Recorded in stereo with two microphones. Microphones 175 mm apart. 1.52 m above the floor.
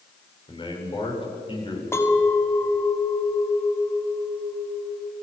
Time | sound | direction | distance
0.5 | a man speaking | 30° left (ahead or behind) | 7 m
1.9 | a clink | 15° left (ahead or behind) | 2 m